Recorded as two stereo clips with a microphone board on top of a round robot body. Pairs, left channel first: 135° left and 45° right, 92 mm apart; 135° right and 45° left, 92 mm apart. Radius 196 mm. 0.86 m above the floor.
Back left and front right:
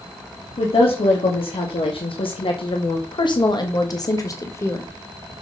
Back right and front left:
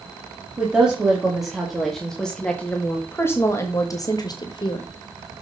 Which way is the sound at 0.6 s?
125° left.